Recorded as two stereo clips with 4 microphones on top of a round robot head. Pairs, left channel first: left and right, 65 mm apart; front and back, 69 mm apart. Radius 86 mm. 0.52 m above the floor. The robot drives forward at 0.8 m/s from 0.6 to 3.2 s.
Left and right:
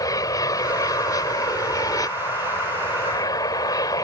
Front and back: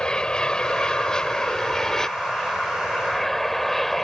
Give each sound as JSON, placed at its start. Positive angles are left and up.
{"t": 0.0, "sound": "an aircraft", "azimuth_deg": 80}